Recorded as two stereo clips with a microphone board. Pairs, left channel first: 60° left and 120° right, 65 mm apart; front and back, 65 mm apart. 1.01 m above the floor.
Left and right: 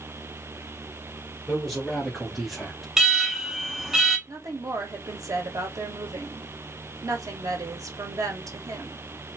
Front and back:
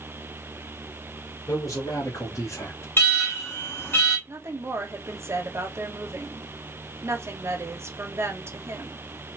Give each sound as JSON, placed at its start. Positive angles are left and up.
{"t": 1.5, "sound": "a man speaking", "azimuth_deg": -25, "distance_m": 1.8}
{"t": 3.0, "sound": "an alarm", "azimuth_deg": -40, "distance_m": 1.5}
{"t": 4.3, "sound": "a woman speaking", "azimuth_deg": -135, "distance_m": 0.9}